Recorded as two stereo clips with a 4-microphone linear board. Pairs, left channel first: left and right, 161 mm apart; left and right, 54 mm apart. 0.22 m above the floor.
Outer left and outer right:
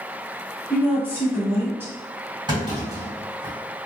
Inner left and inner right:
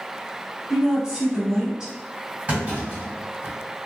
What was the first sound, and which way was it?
A woman speaking, 15° right (ahead or behind).